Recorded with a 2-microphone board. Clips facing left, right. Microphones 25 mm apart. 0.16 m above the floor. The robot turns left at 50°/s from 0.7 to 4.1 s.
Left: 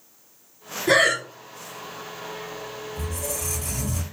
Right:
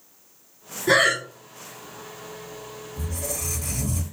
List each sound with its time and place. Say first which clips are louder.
0.9 s breathing: even; 5° right (ahead or behind), 0.8 m; by 1.2 s 20° right (ahead or behind), 0.8 m
3.0 s a squeak: right 1 dB; 135° right, 1.2 m; by 4.0 s 170° left, 1.2 m